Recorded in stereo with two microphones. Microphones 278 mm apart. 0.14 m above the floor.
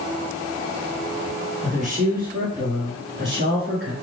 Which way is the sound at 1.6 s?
10° right (ahead or behind).